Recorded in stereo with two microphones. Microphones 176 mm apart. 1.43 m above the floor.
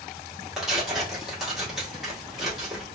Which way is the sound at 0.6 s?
Centre (ahead or behind).